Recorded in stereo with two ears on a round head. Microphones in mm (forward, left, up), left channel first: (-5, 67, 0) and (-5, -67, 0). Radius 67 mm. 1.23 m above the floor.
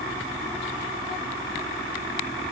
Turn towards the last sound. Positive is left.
No sound to turn to.